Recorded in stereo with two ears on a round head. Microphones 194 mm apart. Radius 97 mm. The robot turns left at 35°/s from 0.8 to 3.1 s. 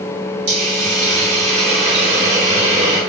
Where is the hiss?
80° right, 2.5 m; by 3.0 s 155° right, 2.5 m.